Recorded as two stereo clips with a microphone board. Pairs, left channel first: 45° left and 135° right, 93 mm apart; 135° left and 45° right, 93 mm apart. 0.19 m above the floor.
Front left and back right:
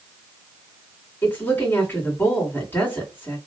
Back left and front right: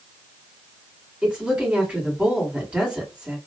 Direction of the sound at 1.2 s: 20° left.